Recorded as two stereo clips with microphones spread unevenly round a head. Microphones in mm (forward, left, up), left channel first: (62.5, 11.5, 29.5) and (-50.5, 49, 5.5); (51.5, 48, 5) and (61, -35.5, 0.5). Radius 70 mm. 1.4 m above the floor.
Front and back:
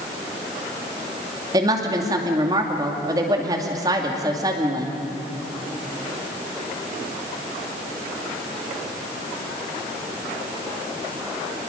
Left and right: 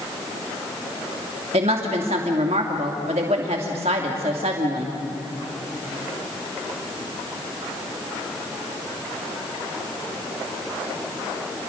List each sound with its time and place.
1.5 s a woman speaking: 130° right, 2.5 m